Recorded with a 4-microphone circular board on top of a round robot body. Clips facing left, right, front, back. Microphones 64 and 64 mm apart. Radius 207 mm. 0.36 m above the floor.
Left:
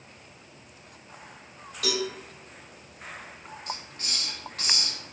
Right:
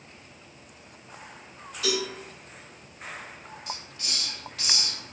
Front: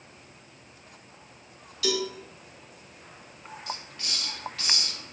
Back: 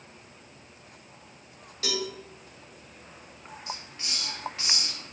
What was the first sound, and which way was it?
A cowbell, 125° left.